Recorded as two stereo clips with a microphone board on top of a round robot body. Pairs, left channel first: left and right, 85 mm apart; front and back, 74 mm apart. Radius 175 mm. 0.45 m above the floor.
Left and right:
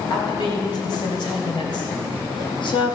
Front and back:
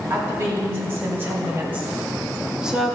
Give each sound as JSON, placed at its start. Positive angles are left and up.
{"t": 0.1, "sound": "a woman speaking", "azimuth_deg": 125, "distance_m": 3.5}